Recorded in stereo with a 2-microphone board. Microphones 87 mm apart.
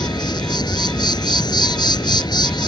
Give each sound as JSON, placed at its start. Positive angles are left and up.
{"t": 0.0, "sound": "an insect", "side_deg": 50}